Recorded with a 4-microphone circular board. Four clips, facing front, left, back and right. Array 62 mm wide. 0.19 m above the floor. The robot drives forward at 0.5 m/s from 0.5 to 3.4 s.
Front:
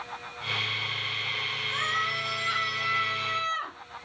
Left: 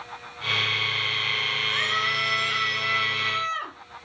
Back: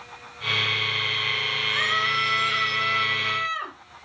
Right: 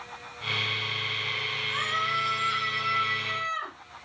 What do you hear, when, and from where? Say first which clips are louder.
1.7 s a scream: left 1 dB, back 5 dB; 150° left, 5 m; by 3.7 s 155° left, 5.5 m